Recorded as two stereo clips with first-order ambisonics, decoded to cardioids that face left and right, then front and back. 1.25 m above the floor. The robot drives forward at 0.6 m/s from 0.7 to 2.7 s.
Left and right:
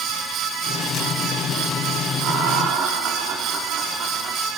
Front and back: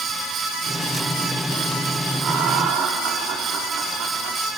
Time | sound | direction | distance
2.2 | laughter | 130° right | 3 m